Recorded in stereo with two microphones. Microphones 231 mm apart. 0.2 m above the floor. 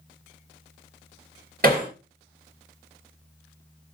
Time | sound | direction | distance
1.6 | hammering | 40° right (ahead or behind) | 2.5 m